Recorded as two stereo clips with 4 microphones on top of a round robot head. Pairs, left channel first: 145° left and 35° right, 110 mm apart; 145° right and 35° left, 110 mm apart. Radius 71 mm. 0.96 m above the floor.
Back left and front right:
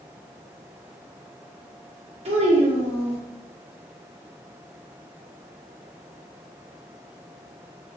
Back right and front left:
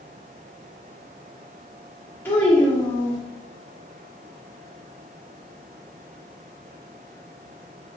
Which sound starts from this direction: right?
A child speaking, at 2.2 s.